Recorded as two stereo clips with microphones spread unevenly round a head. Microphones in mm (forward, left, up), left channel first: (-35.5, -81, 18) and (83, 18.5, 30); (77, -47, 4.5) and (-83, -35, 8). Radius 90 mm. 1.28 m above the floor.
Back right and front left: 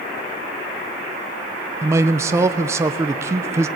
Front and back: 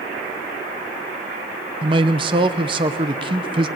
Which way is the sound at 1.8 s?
115° left.